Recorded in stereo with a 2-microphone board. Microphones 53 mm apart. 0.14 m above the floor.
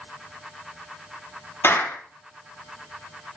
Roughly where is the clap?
Left.